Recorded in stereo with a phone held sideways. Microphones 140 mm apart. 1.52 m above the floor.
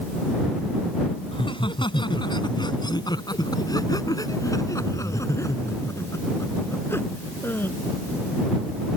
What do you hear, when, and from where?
1.3 s laughter: 35° left (ahead or behind); by 7.8 s 15° left (ahead or behind)